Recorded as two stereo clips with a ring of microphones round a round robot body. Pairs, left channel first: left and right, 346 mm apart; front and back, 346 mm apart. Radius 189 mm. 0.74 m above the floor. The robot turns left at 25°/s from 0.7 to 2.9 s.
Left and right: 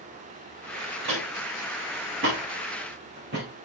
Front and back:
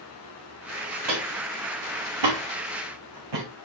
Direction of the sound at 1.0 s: 140° right.